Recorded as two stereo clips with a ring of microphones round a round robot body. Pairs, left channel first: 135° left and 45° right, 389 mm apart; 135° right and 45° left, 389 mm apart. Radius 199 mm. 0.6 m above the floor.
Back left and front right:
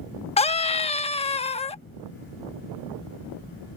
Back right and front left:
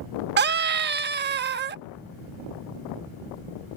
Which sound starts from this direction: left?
A scream, at 0.4 s.